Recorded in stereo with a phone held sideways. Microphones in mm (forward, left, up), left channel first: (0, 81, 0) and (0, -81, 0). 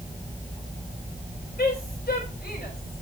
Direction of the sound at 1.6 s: 80° left.